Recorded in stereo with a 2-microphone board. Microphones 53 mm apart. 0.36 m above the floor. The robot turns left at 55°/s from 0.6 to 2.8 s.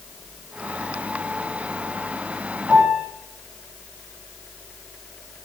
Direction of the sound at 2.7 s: 30° right (ahead or behind).